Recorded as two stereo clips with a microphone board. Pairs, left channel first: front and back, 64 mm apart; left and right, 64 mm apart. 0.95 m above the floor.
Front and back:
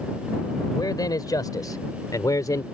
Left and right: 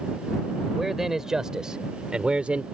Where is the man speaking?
5° right; by 2.6 s 20° right.